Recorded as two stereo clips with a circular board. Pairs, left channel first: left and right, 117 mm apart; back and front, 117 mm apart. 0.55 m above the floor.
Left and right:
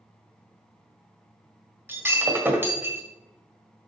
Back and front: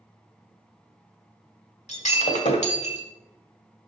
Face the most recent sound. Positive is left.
turn(degrees=-160)